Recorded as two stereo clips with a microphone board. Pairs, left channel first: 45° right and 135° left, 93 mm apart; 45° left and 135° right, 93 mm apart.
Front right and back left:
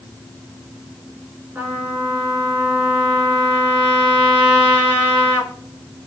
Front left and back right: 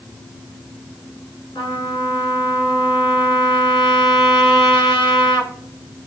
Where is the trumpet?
70° left, 1.4 m.